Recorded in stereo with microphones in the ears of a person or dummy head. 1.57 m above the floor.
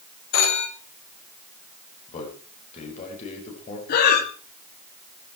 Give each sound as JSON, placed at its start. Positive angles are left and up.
{"t": 0.3, "sound": "a phone ringing", "side_deg": 75, "distance_m": 2.5}
{"t": 2.1, "sound": "a man speaking", "side_deg": 50, "distance_m": 6.0}
{"t": 3.9, "sound": "breathing", "side_deg": 65, "distance_m": 2.5}